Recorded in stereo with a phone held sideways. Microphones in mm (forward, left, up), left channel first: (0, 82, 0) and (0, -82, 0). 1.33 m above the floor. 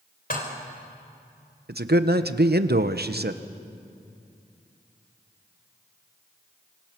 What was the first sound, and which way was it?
Dishes clattering, 65° left (ahead or behind).